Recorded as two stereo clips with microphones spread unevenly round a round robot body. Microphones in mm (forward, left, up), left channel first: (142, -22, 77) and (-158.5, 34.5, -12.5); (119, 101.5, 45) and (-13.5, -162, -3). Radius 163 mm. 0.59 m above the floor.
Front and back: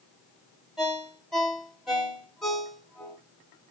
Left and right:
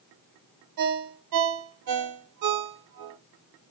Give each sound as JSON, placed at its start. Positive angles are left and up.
{"t": 0.8, "sound": "a ringtone", "azimuth_deg": -100, "distance_m": 0.9}